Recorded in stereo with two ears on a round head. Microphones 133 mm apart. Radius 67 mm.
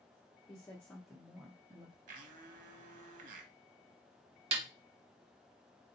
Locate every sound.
0.5 s a woman speaking: 25° left (ahead or behind), 1.0 m; by 2.0 s 30° right (ahead or behind), 0.9 m
2.1 s a blender: 55° right (ahead or behind), 0.7 m
4.5 s a snare drum: 40° right (ahead or behind), 0.8 m